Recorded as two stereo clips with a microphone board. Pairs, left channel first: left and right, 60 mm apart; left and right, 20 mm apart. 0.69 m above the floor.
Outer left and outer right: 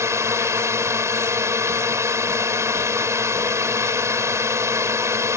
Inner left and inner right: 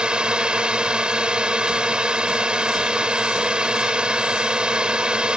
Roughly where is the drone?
Right.